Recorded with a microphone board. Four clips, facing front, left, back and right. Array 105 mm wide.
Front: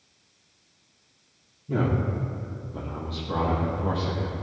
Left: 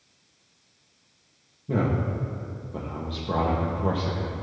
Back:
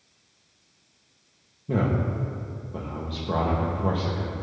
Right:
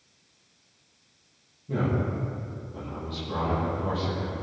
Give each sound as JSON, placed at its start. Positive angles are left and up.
{"t": 1.7, "sound": "a man speaking", "azimuth_deg": 145, "distance_m": 7.5}